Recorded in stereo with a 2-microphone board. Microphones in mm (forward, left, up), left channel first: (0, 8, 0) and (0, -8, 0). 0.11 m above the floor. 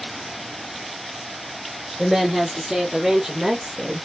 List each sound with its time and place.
2.0 s a woman speaking: 10° left (ahead or behind), 1.8 m; by 4.1 s 40° right (ahead or behind), 1.8 m